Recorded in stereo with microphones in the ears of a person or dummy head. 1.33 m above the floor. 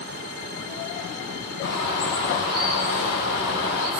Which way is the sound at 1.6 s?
70° left (ahead or behind).